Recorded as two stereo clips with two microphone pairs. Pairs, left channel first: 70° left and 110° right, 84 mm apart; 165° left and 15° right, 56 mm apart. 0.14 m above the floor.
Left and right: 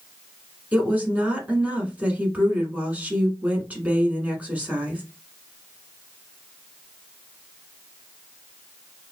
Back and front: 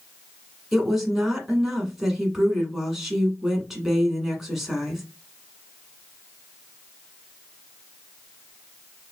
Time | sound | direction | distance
0.7 | a woman speaking | 90° right | 1.1 m